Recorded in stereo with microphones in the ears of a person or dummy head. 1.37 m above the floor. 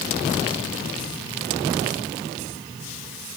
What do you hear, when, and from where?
Only background noise.